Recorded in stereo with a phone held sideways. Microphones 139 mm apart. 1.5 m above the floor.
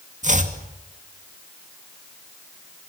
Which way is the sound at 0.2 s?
55° right (ahead or behind).